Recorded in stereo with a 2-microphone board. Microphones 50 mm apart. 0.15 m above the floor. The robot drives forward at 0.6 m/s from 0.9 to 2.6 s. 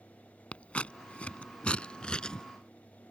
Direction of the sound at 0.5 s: 25° left (ahead or behind).